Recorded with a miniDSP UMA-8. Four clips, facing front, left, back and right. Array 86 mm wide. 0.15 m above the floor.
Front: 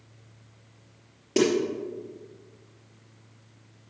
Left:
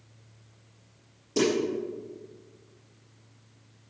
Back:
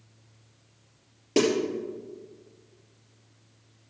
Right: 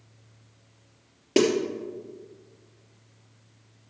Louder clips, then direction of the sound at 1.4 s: Right 4 dB, even; 90° right.